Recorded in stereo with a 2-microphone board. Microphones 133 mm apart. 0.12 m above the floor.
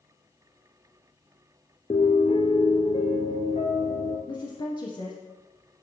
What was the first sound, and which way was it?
A piano, 55° left (ahead or behind).